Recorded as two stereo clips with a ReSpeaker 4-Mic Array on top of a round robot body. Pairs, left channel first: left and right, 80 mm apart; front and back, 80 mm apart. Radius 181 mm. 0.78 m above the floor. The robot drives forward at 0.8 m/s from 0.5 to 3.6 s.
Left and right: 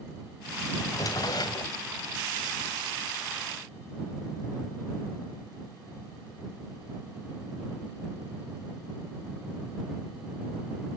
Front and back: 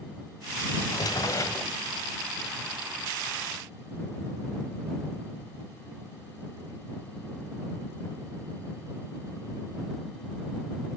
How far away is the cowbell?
I don't hear a cowbell.